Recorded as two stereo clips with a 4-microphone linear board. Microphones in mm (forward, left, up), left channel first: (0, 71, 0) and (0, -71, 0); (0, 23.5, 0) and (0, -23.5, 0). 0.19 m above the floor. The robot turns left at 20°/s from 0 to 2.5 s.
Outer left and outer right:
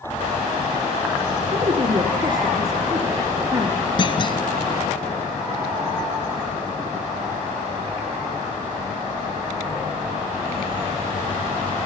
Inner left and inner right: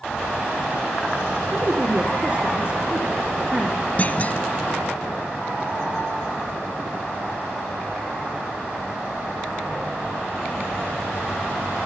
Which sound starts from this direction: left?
A clunk, at 4.0 s.